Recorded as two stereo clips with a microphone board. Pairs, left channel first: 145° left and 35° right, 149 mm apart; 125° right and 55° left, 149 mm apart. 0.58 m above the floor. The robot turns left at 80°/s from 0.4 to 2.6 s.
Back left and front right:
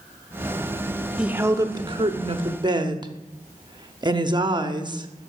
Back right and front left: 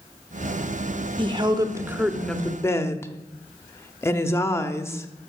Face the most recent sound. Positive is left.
turn(degrees=-65)